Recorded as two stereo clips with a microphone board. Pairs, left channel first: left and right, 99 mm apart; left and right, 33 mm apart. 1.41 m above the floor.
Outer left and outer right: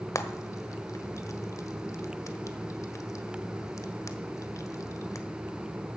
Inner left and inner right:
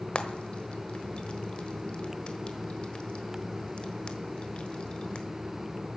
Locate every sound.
0.1 s frying: 35° left (ahead or behind), 1.3 m